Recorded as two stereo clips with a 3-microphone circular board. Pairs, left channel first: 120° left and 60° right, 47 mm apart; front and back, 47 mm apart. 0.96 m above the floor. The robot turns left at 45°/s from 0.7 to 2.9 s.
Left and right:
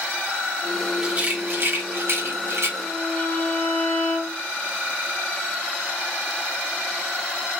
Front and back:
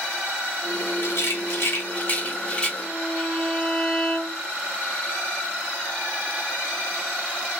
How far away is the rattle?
About 1.4 m.